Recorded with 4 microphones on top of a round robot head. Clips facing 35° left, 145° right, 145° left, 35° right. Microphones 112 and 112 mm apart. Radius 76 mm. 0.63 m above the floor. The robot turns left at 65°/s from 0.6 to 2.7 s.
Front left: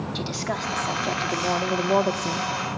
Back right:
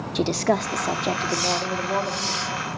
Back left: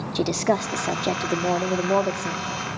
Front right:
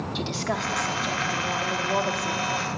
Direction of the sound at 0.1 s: Straight behind.